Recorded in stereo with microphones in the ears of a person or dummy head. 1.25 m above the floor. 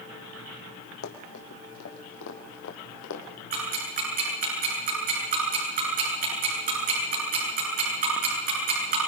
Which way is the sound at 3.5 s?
50° right (ahead or behind).